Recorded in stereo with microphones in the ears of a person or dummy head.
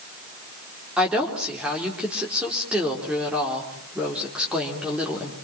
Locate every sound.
1.0 s a woman speaking: 5° right (ahead or behind), 4 m